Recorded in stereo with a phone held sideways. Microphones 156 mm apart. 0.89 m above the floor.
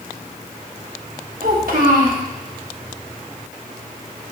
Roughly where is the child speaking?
Right.